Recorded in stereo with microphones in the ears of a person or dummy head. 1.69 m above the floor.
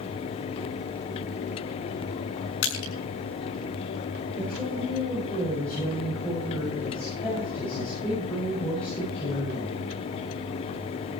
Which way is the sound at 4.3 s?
5° left (ahead or behind).